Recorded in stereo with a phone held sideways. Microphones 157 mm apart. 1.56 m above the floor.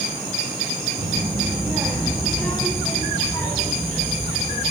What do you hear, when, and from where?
1.0 s a child speaking: 50° right (ahead or behind), 1.8 m; by 4.6 s 35° left (ahead or behind), 5 m